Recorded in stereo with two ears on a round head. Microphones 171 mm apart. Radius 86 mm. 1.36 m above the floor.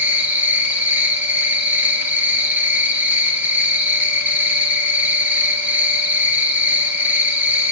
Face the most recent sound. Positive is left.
turn(degrees=-10)  # may be behind; listen again after turning